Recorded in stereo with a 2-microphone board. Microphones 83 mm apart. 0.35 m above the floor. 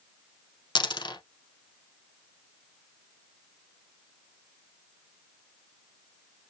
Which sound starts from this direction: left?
A dropped coin, at 0.8 s.